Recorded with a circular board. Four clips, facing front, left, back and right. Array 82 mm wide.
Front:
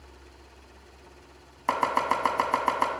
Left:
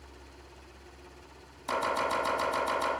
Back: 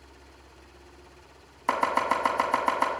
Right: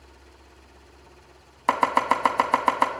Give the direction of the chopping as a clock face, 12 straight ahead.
3 o'clock.